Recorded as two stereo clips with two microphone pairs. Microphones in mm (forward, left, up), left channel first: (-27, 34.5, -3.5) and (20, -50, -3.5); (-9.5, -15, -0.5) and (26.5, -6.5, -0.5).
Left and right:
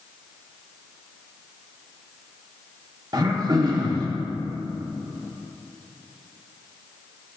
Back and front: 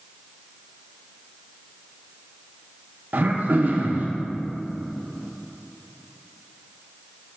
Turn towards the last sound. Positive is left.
turn(degrees=-20)